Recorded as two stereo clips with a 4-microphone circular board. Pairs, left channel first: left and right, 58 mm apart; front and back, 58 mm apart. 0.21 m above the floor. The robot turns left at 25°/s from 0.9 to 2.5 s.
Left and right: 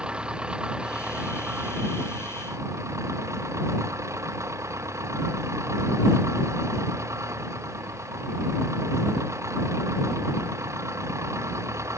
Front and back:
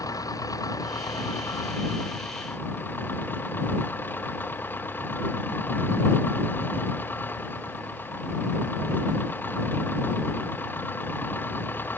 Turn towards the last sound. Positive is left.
turn(degrees=-55)